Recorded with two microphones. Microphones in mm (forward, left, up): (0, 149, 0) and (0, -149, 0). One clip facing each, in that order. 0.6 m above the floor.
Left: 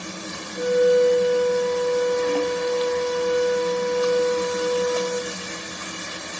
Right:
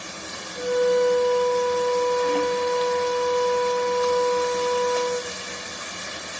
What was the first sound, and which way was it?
A flute, 30° left (ahead or behind).